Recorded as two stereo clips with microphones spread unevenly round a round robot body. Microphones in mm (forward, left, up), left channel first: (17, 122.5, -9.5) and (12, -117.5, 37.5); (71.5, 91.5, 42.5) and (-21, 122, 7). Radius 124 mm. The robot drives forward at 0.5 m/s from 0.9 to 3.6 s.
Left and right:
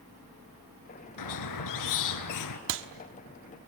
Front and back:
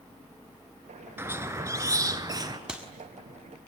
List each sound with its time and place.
1.2 s a squeak: 90° left, 2.0 m; by 2.6 s 110° left, 2 m
2.7 s a clap: 130° right, 1.4 m; by 2.9 s 135° right, 1.5 m